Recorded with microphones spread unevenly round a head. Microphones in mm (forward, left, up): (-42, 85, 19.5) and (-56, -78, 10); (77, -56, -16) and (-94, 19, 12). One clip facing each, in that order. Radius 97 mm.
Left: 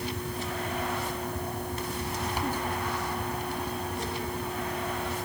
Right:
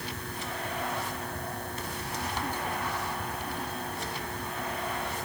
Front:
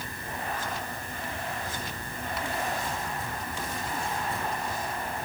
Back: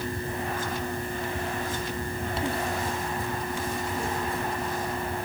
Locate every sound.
Only background noise.